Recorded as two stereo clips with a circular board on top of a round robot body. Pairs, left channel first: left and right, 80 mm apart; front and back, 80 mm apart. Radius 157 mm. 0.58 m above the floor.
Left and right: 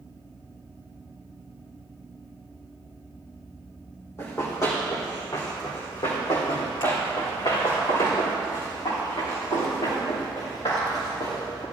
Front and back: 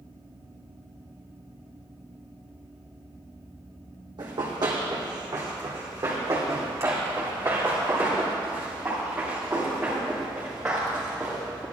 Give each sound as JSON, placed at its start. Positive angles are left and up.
{"t": 4.2, "sound": "running footsteps", "azimuth_deg": 150, "distance_m": 2.0}